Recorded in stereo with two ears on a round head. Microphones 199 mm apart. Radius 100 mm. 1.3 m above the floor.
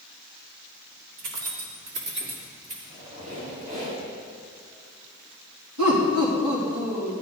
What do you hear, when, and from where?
1.2 s keys jangling: 75° right (ahead or behind), 2 m; by 2.7 s 30° right (ahead or behind), 2 m
2.8 s a squeak: 35° right (ahead or behind), 4.5 m
5.8 s laughter: 80° right, 3 m